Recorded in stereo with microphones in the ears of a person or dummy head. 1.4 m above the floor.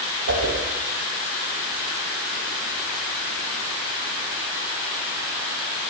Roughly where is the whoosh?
Right.